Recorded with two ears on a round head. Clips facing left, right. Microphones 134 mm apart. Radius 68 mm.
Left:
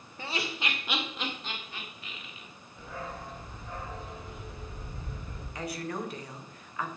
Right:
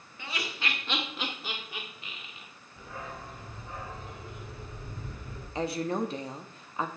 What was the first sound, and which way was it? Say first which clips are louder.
Laughter: left 2 dB; 30° left (ahead or behind).